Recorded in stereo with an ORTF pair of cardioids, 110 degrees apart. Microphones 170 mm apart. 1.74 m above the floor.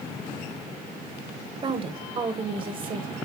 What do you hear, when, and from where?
1.6 s a woman speaking: 30° right, 1.4 m